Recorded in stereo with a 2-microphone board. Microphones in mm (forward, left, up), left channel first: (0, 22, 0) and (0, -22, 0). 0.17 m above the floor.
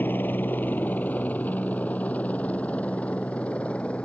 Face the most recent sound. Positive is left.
turn(degrees=25)  # may be behind; listen again after turning